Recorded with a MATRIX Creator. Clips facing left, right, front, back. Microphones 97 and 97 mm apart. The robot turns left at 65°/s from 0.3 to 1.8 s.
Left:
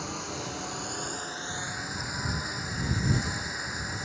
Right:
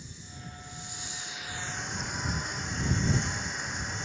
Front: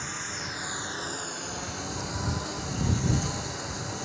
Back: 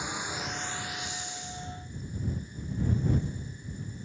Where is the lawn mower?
105° left; by 4.1 s 5° left.